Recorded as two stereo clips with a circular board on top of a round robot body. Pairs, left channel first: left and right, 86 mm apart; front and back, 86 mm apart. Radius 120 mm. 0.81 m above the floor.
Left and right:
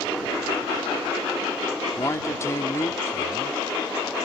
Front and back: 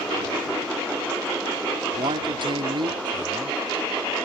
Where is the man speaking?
150° left.